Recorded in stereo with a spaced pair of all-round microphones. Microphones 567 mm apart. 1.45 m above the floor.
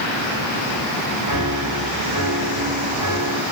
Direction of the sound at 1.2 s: 55° right (ahead or behind).